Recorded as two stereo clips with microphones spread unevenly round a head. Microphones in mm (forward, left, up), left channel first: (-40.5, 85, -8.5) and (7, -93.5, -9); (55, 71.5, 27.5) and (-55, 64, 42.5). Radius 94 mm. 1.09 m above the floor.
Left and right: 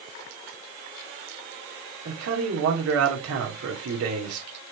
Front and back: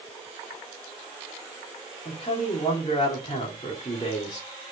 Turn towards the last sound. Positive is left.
turn(degrees=-55)